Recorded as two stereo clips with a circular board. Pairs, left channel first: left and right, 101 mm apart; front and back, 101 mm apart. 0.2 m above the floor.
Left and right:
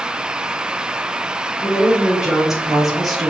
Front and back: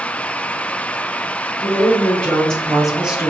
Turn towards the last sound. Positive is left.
turn(degrees=180)